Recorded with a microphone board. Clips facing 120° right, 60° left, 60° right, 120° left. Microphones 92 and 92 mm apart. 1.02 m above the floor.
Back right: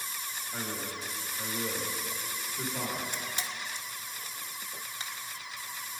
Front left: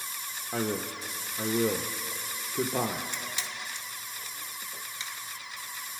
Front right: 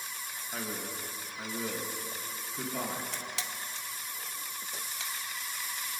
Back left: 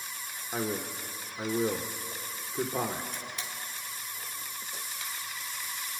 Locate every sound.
0.5 s a man speaking: 55° left, 0.8 m
3.1 s a camera shutter: 75° right, 1.1 m